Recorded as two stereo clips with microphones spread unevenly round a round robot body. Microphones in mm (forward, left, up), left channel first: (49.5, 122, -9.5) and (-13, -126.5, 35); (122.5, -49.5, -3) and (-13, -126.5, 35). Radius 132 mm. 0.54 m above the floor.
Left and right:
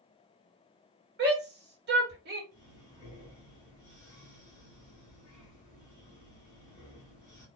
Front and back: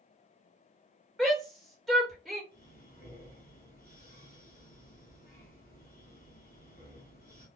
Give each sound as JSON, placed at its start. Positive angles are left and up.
{"t": 1.2, "sound": "a shout", "azimuth_deg": -50, "distance_m": 1.3}
{"t": 2.5, "sound": "breathing", "azimuth_deg": 0, "distance_m": 1.7}